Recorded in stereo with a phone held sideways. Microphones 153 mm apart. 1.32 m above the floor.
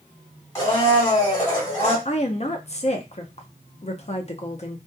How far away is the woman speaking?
About 0.5 m.